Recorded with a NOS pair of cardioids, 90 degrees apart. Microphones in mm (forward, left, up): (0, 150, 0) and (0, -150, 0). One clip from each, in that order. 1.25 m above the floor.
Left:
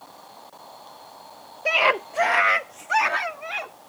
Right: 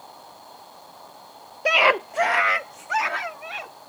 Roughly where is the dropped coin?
I don't hear a dropped coin.